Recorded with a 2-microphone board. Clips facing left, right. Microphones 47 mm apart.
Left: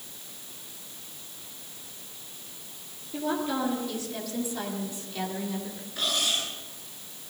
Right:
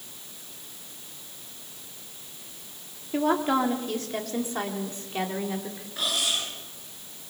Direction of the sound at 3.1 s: 55° right (ahead or behind).